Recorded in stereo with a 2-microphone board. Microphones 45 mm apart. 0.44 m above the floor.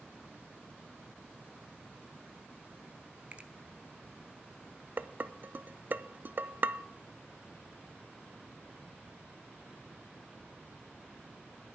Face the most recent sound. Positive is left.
turn(degrees=-45)  # may be behind; listen again after turning